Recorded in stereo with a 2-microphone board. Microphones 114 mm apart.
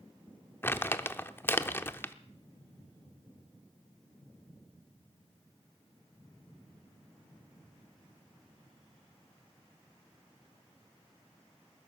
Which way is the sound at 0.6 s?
20° left (ahead or behind).